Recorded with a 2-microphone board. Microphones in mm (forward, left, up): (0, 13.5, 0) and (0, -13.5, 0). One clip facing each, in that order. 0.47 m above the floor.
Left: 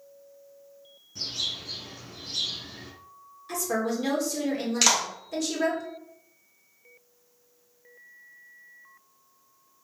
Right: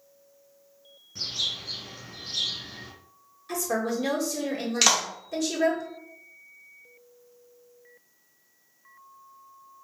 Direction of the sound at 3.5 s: 5° left (ahead or behind).